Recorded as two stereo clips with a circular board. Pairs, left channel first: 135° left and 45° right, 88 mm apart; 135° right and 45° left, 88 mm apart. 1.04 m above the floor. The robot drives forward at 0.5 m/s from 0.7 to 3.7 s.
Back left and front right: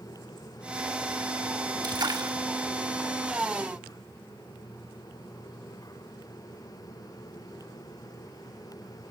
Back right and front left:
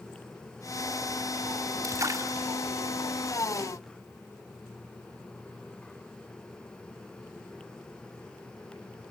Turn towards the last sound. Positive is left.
turn(degrees=-20)